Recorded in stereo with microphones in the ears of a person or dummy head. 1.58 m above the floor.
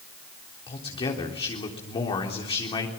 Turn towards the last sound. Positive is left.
turn(degrees=25)  # may be behind; listen again after turning